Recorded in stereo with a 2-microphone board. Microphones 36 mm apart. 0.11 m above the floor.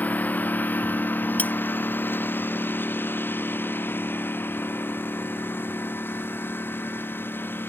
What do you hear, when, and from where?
0.0 s a lawn mower: 50° left (ahead or behind); by 7.7 s 90° left
1.4 s cutlery clinking: 45° left (ahead or behind)